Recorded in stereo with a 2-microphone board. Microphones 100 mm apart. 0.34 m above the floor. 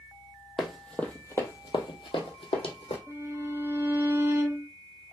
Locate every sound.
0.6 s running footsteps: centre (ahead or behind), 0.8 m; by 3.0 s 75° left (ahead or behind), 1.1 m
3.1 s a violin: 25° right (ahead or behind), 1.2 m